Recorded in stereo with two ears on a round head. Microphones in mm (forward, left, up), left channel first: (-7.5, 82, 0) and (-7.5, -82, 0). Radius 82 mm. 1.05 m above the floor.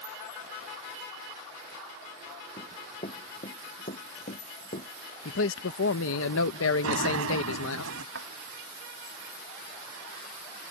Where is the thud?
75° right (ahead or behind).